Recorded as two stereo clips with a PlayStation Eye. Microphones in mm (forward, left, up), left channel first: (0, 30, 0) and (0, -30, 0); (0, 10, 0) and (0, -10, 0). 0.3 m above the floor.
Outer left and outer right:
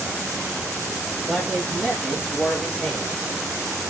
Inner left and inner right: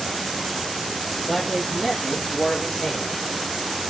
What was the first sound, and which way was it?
A man speaking, 5° right (ahead or behind).